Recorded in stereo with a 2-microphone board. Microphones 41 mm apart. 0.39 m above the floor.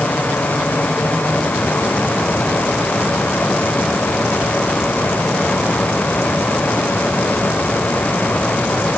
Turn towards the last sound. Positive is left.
No sound to turn to.